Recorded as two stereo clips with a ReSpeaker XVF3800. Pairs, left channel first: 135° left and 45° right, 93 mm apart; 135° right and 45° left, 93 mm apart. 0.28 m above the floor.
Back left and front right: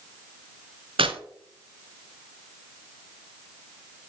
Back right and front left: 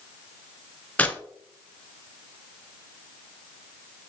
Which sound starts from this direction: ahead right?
Tearing paper, at 1.0 s.